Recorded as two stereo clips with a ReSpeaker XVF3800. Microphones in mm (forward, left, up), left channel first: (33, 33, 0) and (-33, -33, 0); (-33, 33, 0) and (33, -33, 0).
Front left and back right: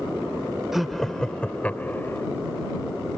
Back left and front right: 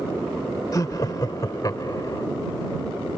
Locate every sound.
0.7 s laughter: 140° left; by 2.2 s 100° left